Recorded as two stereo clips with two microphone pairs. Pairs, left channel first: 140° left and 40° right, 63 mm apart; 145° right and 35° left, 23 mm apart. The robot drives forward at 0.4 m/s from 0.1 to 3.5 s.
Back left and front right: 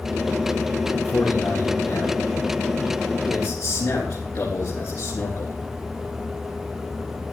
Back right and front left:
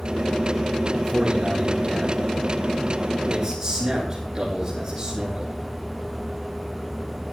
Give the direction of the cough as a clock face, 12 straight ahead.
No cough in this recording.